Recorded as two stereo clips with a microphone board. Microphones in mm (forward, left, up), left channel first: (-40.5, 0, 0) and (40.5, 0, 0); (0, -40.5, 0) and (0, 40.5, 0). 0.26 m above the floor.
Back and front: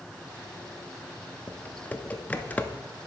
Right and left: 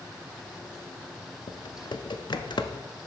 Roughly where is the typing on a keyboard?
Right.